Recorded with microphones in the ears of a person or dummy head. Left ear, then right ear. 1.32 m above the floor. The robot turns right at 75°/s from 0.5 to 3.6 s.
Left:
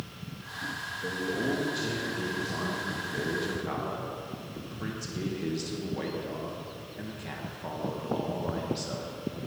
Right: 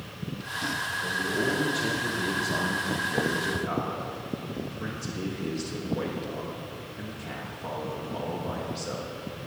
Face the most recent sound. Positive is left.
turn(degrees=10)